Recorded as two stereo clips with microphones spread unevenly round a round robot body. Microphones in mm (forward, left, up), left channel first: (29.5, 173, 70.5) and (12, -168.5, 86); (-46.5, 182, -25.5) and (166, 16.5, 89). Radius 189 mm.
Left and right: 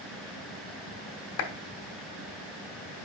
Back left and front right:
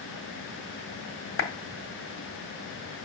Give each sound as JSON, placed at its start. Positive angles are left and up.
{"t": 1.4, "sound": "a clap", "azimuth_deg": 125, "distance_m": 1.9}